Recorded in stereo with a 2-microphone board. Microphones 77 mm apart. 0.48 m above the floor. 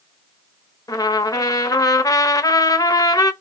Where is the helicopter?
No helicopter in this recording.